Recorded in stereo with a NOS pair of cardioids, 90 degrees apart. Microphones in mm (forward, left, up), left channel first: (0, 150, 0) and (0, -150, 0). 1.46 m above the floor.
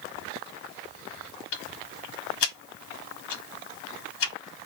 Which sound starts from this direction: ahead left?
Ticking, at 1.5 s.